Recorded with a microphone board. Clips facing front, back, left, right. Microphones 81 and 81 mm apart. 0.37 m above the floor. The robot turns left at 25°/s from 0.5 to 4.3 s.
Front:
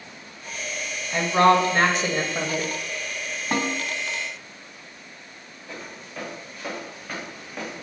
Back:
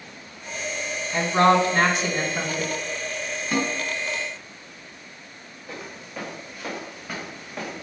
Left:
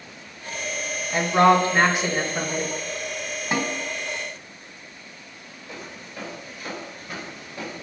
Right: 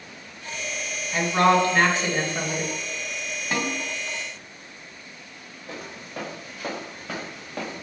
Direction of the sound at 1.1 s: 40° left.